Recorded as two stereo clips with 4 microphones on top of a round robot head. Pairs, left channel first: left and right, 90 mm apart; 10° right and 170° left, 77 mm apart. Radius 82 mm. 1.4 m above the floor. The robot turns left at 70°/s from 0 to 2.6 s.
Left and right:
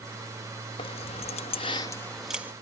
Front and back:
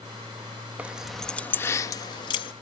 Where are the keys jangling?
100° left; by 2.5 s 20° right.